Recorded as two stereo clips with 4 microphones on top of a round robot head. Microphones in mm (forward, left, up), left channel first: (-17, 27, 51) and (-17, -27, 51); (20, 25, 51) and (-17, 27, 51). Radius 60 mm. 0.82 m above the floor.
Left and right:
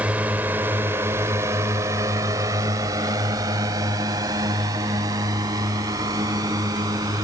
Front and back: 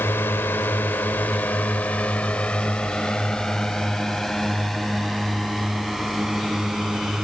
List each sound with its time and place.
0.0 s a drone: 25° right; by 7.2 s 100° right